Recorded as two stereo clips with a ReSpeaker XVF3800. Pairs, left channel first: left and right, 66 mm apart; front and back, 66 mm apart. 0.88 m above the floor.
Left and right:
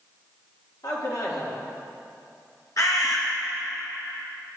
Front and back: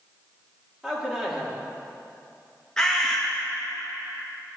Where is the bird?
80° left, 1.1 m.